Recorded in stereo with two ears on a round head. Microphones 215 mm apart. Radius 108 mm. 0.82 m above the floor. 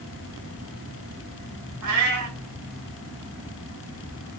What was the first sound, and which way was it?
A cat meowing, 75° right (ahead or behind).